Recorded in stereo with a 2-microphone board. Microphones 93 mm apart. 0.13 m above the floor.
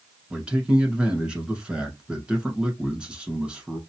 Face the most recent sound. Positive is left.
turn(degrees=-10)  # may be behind; listen again after turning